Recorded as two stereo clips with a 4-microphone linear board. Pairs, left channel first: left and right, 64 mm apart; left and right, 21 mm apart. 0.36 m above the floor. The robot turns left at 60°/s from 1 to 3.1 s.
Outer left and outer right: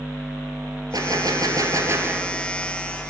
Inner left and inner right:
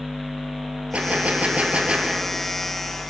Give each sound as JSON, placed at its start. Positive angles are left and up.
{"t": 0.9, "sound": "a gunshot", "azimuth_deg": -75, "distance_m": 1.2}